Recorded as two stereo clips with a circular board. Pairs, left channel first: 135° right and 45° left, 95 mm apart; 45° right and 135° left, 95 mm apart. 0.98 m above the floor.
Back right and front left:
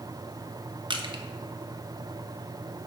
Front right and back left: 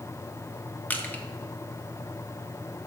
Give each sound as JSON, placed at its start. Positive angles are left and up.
{"t": 0.9, "sound": "crushing", "azimuth_deg": 25, "distance_m": 1.0}